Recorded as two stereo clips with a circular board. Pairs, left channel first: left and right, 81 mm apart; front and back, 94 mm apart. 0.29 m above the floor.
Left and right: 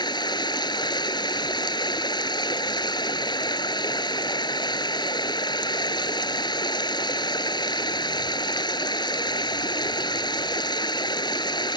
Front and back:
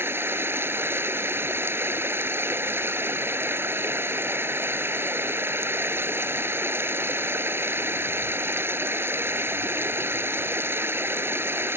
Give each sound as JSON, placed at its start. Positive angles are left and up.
{"t": 0.0, "sound": "running water", "azimuth_deg": 115}